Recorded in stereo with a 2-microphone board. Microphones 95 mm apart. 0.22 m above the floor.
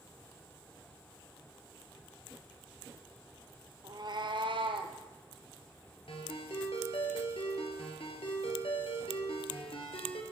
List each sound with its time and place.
3.8 s a cat meowing: 50° right (ahead or behind), 1.2 m; by 5.0 s 70° right (ahead or behind), 1.7 m
6.1 s a ringtone: 75° left (ahead or behind), 3 m